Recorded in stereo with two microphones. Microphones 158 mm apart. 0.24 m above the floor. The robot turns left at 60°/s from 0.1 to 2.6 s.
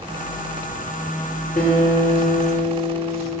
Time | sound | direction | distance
1.6 | a guitar | 75° left | 4.5 m